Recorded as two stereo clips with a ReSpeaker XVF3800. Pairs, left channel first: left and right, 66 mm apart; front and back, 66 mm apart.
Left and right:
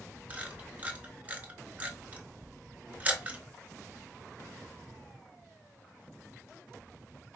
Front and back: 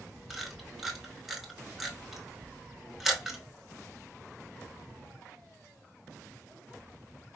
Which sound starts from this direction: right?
A camera shutter, at 0.3 s.